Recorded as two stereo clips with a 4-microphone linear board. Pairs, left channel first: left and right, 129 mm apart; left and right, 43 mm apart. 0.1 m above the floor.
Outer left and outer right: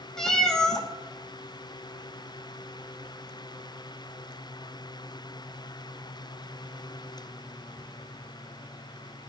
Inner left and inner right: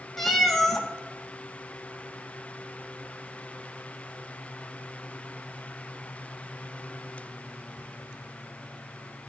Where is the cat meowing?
5° left (ahead or behind), 1.2 m.